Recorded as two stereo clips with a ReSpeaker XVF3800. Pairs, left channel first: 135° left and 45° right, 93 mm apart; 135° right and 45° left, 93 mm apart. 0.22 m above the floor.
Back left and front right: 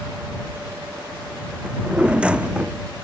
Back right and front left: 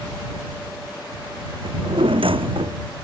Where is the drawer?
35° left.